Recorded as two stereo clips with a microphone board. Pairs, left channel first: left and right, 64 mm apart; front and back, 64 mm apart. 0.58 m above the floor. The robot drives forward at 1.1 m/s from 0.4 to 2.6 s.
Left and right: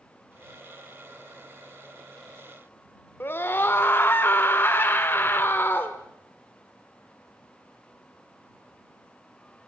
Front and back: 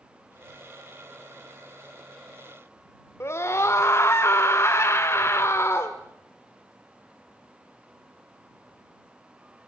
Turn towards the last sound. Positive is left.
turn(degrees=40)